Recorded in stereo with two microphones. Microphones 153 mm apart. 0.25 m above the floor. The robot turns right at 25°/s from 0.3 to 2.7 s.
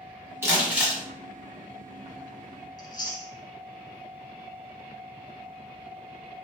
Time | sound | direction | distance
0.4 | crumpling | 15° right (ahead or behind) | 1.1 m
2.8 | chewing | 30° left (ahead or behind) | 0.6 m